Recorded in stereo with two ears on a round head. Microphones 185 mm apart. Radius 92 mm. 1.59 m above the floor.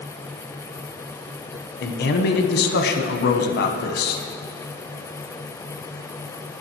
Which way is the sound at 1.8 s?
50° left (ahead or behind).